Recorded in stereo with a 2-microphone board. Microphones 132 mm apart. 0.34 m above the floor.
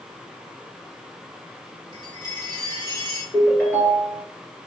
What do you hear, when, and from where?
1.9 s a chime: 40° right (ahead or behind), 1.3 m
3.3 s a ringtone: 15° left (ahead or behind), 1.9 m